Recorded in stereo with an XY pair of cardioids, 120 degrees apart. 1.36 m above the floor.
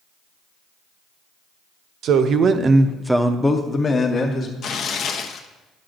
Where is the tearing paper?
55° left, 0.8 m.